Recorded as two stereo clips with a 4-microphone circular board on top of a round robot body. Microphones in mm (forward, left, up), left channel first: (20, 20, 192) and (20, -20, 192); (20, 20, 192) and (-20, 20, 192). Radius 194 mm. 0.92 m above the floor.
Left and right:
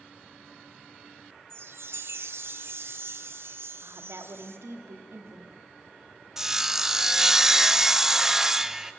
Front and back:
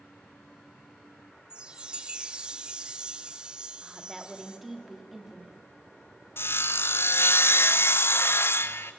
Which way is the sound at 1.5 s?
110° right.